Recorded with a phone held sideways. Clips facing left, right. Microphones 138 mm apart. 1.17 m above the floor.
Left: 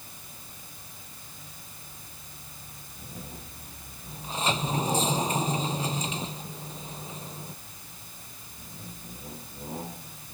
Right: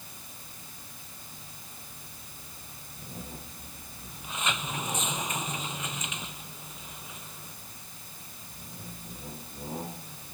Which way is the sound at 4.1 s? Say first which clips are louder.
Left 5 dB; 30° left (ahead or behind).